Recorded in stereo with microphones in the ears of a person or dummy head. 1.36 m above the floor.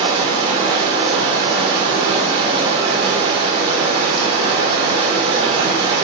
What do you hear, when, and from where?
0.0 s running water: 30° right (ahead or behind), 1.5 m